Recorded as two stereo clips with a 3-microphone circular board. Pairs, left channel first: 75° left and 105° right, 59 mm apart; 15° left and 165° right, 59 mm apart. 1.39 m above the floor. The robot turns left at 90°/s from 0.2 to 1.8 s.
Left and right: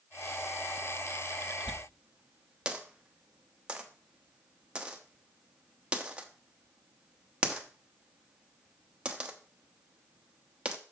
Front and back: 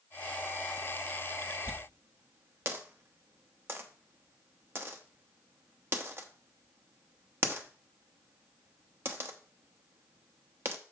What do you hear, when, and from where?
1.7 s a dropped coin: 155° right, 0.9 m; by 10.8 s 170° right, 0.9 m